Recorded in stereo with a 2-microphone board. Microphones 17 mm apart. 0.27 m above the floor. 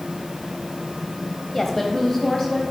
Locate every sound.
1.5 s a woman speaking: 20° left (ahead or behind), 1.0 m